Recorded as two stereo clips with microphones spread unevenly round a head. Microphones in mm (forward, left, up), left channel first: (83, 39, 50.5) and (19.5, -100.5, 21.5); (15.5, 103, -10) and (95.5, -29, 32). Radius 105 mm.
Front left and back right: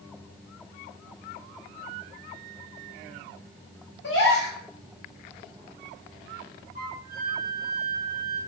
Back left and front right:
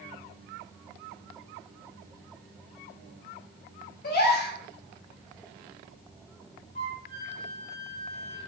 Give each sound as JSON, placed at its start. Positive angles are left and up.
{"t": 4.0, "sound": "a gasp", "azimuth_deg": 95, "distance_m": 1.1}
{"t": 6.8, "sound": "a flute", "azimuth_deg": 170, "distance_m": 1.2}